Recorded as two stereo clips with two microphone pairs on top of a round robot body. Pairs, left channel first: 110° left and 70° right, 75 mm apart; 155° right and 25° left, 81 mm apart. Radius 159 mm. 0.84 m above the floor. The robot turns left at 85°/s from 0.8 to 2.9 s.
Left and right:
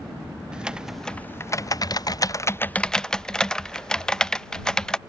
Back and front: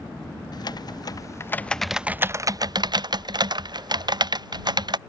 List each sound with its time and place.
0.5 s typing on a keyboard: 150° right; by 5.0 s 30° left